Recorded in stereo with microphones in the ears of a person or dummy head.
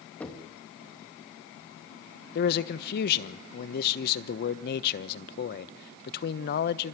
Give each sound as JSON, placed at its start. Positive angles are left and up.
{"t": 0.2, "sound": "knocking", "side_deg": 10, "distance_m": 2.5}
{"t": 2.4, "sound": "a man speaking", "side_deg": 55, "distance_m": 1.0}